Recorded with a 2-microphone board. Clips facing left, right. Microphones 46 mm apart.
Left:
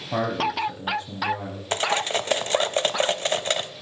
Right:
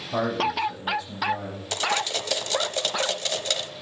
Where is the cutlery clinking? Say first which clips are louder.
Left 2 dB; 30° left (ahead or behind), 0.7 m.